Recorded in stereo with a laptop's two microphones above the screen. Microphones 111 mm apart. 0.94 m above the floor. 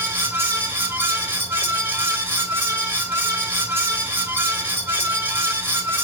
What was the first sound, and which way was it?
A fan, 20° right (ahead or behind).